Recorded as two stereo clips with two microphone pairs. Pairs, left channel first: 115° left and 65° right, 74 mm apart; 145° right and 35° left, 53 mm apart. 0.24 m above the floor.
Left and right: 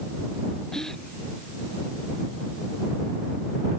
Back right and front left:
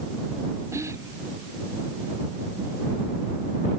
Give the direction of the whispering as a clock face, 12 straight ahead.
11 o'clock.